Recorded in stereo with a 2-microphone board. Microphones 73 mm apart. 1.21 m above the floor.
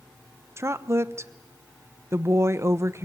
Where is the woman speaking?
35° right (ahead or behind), 1.0 m.